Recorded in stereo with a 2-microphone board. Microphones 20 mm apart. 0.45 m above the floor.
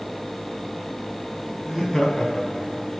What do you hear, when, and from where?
1.6 s laughter: 45° left (ahead or behind), 3.5 m; by 2.9 s 25° left (ahead or behind), 1.8 m